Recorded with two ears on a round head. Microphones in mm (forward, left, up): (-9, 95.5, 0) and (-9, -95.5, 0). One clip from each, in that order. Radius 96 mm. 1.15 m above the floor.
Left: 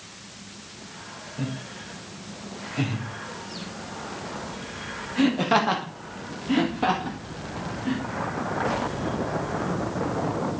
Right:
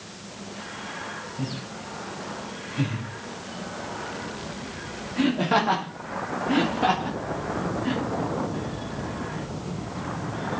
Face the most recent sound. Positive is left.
turn(degrees=-25)  # may be behind; listen again after turning